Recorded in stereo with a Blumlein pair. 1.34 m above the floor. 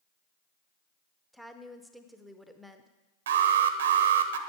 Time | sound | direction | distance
1.3 | a woman speaking | straight ahead | 0.7 m
3.3 | an alarm | 60° right | 0.8 m